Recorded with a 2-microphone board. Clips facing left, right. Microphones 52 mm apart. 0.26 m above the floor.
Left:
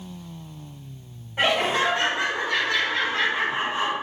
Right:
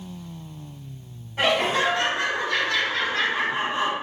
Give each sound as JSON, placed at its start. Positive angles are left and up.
{"t": 1.4, "sound": "laughter", "side_deg": 20, "distance_m": 1.8}